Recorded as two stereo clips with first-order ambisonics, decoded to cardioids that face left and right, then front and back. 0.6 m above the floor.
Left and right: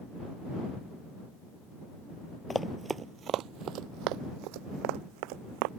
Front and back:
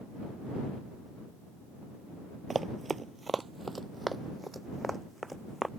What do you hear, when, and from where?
2.5 s running footsteps: 135° left; by 5.7 s 90° right